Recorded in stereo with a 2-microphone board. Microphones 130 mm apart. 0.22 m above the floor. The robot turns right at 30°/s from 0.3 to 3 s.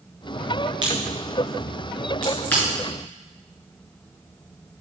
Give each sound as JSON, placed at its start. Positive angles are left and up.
{"t": 0.8, "sound": "a crack", "side_deg": -35, "distance_m": 4.0}